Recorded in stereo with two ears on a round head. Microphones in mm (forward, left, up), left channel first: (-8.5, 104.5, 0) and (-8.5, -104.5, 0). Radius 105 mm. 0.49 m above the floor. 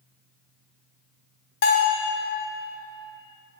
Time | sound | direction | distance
1.6 | a bell | 50° left (ahead or behind) | 1.8 m